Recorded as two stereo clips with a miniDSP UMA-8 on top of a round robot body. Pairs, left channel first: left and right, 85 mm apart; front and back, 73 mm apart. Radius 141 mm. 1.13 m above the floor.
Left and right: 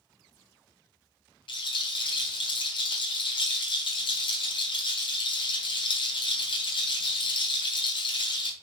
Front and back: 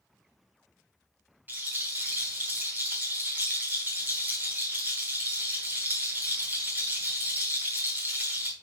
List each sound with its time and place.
1.5 s a rattle: 115° left, 1.4 m